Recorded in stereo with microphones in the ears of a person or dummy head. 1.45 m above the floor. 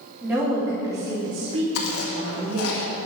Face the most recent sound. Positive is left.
turn(degrees=85)